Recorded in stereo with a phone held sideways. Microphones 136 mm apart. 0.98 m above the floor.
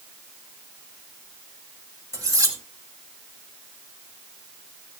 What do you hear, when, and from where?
2.1 s cutlery clinking: 25° right (ahead or behind), 4.5 m